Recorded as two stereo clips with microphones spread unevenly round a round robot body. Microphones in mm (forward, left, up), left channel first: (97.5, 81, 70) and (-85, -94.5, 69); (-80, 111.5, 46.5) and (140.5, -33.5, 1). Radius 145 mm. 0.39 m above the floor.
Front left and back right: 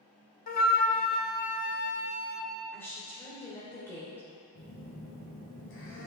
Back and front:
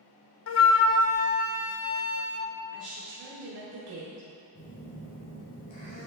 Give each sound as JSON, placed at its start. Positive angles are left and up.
{"t": 0.5, "sound": "a flute", "azimuth_deg": 100, "distance_m": 0.6}
{"t": 2.7, "sound": "a woman speaking", "azimuth_deg": -35, "distance_m": 1.9}
{"t": 4.5, "sound": "a phone buzzing", "azimuth_deg": 85, "distance_m": 3.0}